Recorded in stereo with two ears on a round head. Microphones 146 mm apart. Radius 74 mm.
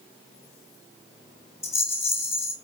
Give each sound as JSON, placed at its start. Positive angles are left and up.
{"t": 1.6, "sound": "a rattle", "side_deg": 15, "distance_m": 2.5}